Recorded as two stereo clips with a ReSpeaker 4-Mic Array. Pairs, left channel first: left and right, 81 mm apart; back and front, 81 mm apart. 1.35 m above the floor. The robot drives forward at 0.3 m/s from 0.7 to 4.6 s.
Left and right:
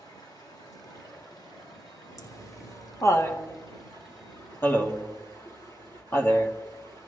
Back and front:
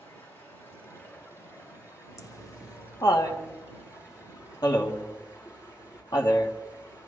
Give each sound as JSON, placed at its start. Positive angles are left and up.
{"t": 0.0, "sound": "running water", "azimuth_deg": 120, "distance_m": 6.0}
{"t": 2.2, "sound": "laughter", "azimuth_deg": 135, "distance_m": 1.5}